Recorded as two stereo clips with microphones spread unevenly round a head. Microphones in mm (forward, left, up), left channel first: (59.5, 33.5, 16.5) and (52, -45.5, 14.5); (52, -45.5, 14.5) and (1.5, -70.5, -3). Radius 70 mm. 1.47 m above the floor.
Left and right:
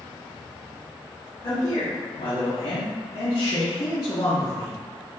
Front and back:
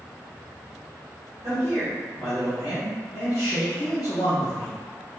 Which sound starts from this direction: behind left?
A man speaking, at 1.4 s.